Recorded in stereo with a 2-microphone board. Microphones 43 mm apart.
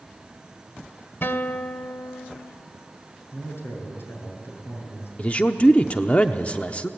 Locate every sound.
1.2 s a guitar: 55° left (ahead or behind), 1.2 m
3.3 s a man speaking: 65° left (ahead or behind), 7.5 m
5.2 s a man speaking: 30° left (ahead or behind), 0.7 m